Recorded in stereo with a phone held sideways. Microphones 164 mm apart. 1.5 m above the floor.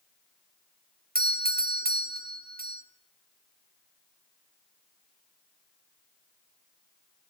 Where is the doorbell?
65° right (ahead or behind), 1.2 m.